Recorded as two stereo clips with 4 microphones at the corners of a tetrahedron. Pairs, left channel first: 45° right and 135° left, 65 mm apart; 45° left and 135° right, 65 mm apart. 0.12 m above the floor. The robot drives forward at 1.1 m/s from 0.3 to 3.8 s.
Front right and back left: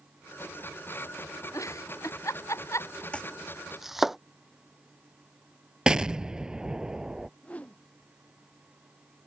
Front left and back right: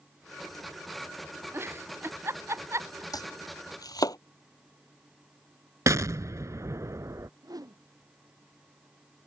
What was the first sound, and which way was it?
A giggle, 85° right.